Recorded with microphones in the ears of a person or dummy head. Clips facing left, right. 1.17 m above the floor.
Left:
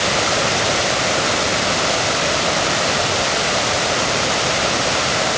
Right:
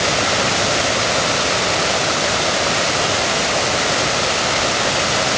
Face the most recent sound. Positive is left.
No sound to turn to.